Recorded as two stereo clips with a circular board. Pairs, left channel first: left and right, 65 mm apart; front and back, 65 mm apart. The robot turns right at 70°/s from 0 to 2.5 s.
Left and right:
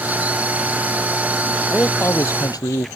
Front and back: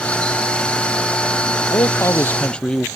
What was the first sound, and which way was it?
A man speaking, 20° left.